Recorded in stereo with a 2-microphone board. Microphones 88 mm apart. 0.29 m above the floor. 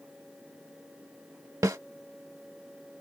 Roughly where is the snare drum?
Right.